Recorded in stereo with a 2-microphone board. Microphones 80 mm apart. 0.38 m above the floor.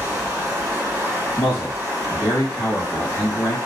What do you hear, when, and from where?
0.0 s running water: 15° right (ahead or behind), 1.8 m
1.4 s a man speaking: 50° left (ahead or behind), 1.6 m